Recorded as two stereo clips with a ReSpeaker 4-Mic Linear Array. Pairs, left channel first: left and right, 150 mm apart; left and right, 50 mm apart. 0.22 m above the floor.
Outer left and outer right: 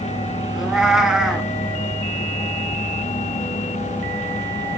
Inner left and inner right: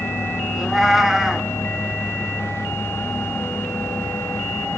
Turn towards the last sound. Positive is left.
turn(degrees=-5)  # may be behind; listen again after turning